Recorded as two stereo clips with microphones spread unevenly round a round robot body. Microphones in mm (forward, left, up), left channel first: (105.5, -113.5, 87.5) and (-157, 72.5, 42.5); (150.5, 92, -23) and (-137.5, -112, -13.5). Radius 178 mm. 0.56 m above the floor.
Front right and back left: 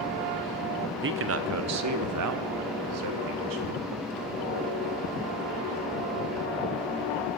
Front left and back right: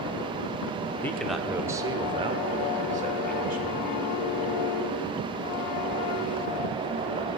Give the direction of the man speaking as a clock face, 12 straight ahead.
8 o'clock.